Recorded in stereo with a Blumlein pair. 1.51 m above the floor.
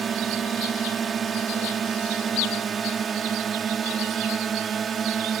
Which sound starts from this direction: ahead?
A drone, at 0.0 s.